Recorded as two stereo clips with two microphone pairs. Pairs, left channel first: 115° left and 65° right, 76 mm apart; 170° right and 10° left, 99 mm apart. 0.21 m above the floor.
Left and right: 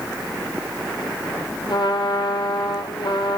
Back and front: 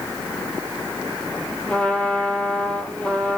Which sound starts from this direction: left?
A trumpet, at 1.7 s.